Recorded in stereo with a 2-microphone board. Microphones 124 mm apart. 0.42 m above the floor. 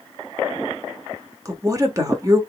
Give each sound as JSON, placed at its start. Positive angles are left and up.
{"t": 1.4, "sound": "a woman speaking", "side_deg": -30, "distance_m": 1.0}